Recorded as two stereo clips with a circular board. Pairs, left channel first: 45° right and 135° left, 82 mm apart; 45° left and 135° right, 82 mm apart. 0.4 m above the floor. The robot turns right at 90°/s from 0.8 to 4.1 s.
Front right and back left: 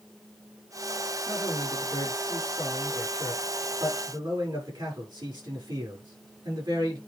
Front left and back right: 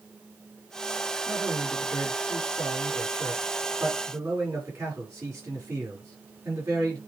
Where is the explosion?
I don't hear an explosion.